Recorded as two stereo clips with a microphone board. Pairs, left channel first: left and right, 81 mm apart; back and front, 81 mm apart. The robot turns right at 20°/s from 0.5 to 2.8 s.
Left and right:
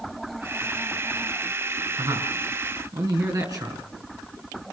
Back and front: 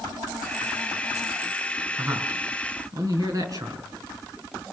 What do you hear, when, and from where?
2.0 s a man speaking: 60° right, 5.5 m; by 3.9 s 45° right, 5.5 m